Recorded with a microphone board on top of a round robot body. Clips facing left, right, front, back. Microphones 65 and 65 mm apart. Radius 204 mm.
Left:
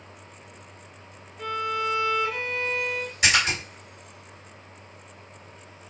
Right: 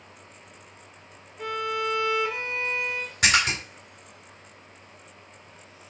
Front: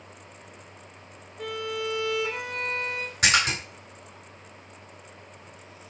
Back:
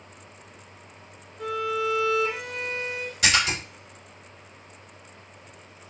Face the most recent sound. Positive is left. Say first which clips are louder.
# even, even
turn(degrees=-45)